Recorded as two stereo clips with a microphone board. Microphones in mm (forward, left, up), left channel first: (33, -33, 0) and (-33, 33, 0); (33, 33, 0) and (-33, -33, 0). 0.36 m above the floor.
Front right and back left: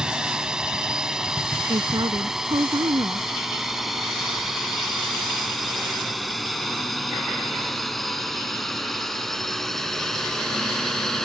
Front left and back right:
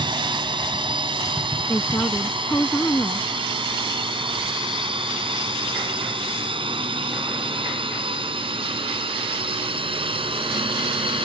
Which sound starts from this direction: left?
A woman speaking, at 1.7 s.